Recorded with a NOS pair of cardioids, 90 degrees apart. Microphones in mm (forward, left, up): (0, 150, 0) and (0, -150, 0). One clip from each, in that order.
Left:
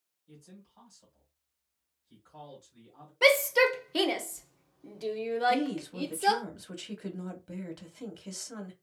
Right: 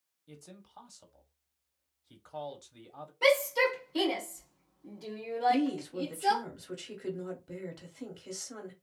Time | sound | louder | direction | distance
0.3 | a man speaking | right 3 dB | 60° right | 1.2 m
3.2 | a shout | left 3 dB | 50° left | 1.0 m
5.5 | a woman speaking | even | 10° left | 1.3 m